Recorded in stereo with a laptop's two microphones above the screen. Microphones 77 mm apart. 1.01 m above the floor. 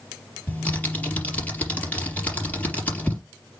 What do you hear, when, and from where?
0.5 s typing on a keyboard: 20° left (ahead or behind), 4 m